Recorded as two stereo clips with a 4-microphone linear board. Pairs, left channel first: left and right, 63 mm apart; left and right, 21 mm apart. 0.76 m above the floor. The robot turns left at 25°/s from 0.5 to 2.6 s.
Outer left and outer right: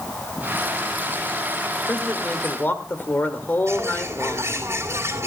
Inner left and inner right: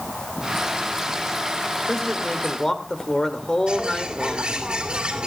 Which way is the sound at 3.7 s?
50° right (ahead or behind).